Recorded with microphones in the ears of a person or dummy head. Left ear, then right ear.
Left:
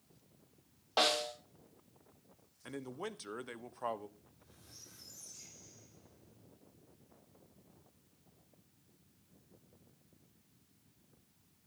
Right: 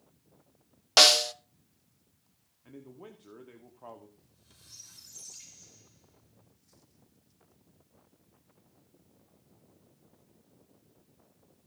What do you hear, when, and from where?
1.0 s a snare drum: 75° right (ahead or behind), 0.8 m
2.6 s a man speaking: 65° left (ahead or behind), 0.9 m
4.2 s a squeak: 60° right (ahead or behind), 7.5 m